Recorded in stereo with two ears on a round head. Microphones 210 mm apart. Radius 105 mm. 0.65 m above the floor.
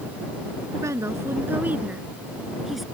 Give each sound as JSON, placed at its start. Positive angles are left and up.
{"t": 0.8, "sound": "a woman speaking", "side_deg": -15}